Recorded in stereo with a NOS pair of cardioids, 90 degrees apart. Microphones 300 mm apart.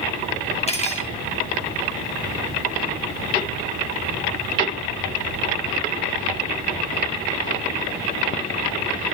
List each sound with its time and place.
0.7 s cutlery clinking: 20° left, 1.5 m